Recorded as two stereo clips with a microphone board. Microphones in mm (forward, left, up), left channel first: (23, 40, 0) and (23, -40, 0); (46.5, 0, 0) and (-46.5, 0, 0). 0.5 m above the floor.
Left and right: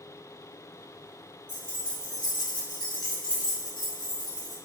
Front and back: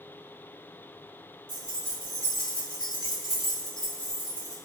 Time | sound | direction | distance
1.5 | keys jangling | 155° left | 1.0 m